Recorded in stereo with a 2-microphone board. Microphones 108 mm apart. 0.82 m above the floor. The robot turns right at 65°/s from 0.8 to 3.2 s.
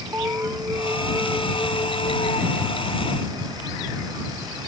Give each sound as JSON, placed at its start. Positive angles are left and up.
{"t": 0.1, "sound": "an alarm", "azimuth_deg": -20}